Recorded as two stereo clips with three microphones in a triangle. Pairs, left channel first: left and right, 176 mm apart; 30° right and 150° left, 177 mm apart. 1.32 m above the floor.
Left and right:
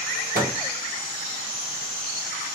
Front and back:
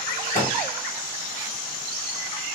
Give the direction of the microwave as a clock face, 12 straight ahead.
2 o'clock.